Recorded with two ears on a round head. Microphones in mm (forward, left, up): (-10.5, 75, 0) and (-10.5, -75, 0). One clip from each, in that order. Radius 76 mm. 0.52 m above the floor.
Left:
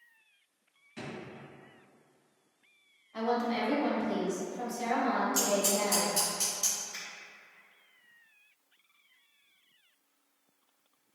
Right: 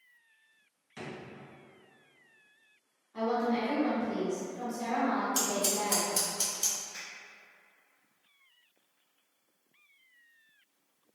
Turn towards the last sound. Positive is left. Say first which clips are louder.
# left 1 dB
turn(degrees=40)  # may be behind; listen again after turning